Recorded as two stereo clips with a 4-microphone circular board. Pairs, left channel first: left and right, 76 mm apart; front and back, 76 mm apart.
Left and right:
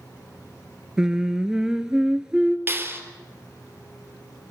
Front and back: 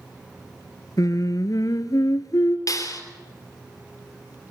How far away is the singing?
About 1.3 m.